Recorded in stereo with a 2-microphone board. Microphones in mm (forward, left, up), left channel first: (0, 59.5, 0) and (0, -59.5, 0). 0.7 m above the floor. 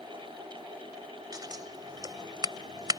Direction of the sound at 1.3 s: 35° right (ahead or behind).